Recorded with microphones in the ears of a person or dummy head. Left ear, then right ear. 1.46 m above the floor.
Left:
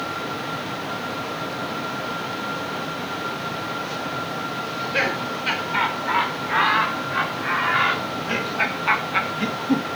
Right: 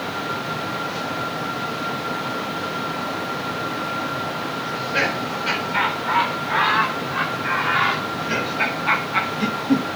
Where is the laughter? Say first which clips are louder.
Right 1 dB; 20° left (ahead or behind), 5 m; by 10.0 s 10° left (ahead or behind), 1.6 m.